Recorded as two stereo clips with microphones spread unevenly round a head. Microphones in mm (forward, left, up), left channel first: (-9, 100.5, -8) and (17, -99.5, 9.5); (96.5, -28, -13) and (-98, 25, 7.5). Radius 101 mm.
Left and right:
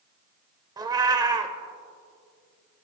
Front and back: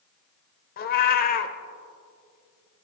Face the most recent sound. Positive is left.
turn(degrees=-30)